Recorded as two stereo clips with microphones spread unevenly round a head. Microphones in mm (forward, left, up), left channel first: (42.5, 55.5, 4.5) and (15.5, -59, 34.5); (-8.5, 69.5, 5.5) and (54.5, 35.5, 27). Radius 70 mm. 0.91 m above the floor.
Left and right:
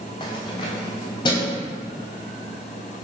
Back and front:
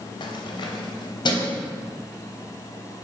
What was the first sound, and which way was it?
Keys jangling, 135° left.